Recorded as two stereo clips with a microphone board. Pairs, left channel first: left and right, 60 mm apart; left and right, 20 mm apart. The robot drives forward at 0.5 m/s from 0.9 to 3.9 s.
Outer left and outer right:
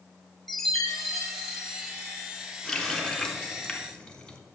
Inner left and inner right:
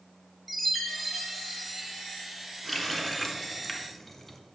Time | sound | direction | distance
0.5 | a chime | centre (ahead or behind) | 1.3 m
2.6 | a running tap | 10° left (ahead or behind) | 1.1 m